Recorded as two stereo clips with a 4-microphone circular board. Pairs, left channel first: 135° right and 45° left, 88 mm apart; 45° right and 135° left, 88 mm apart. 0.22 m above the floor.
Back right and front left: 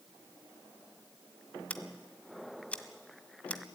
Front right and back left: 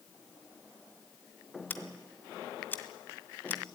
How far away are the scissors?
About 1.5 m.